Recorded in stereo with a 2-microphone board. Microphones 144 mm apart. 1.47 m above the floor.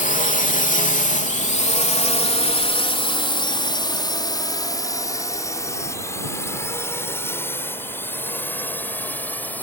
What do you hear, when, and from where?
0.0 s a drone: 70° left (ahead or behind); by 9.6 s 10° left (ahead or behind)